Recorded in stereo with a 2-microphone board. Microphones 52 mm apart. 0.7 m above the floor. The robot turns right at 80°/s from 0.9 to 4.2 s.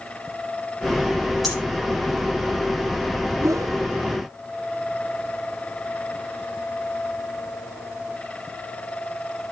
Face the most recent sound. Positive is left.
turn(degrees=-30)